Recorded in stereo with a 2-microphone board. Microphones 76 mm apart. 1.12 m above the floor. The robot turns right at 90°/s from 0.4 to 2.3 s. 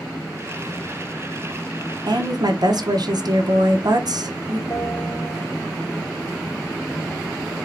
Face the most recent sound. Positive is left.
turn(degrees=20)  # may be behind; listen again after turning